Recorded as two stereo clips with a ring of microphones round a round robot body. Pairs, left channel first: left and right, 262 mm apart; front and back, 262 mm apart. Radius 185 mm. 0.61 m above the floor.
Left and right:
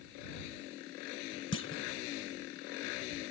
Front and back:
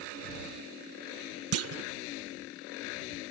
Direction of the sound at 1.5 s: 145° left.